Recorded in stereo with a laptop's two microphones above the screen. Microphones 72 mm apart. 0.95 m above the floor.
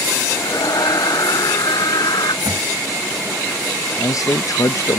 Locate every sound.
0.3 s a scream: 65° left (ahead or behind); by 2.4 s 75° left (ahead or behind)
2.5 s a thud: 75° right (ahead or behind)
4.0 s a man speaking: 50° left (ahead or behind)